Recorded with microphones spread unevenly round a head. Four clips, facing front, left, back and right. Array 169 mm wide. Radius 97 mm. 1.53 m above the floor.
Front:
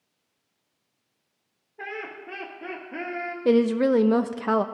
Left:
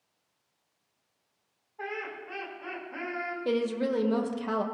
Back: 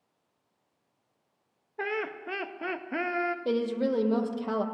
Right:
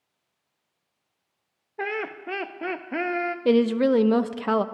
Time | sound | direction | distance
1.8 | laughter | 115° right | 0.7 m
3.5 | a woman speaking | 55° right | 0.5 m